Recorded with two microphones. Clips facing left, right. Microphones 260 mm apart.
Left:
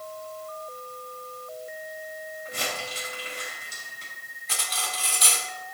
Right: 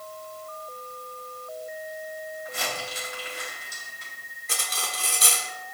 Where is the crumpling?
40° left (ahead or behind), 4.5 m.